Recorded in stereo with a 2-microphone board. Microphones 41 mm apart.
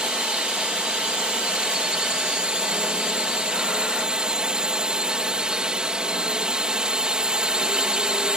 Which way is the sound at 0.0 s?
25° right (ahead or behind).